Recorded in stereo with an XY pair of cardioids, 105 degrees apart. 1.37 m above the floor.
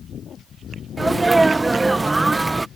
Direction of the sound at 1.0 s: 25° right.